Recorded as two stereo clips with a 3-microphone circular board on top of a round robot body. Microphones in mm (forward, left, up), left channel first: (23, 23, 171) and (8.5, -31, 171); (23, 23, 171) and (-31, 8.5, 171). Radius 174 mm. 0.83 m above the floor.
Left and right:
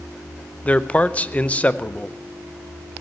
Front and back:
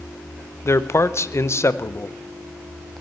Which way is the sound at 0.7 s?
15° left.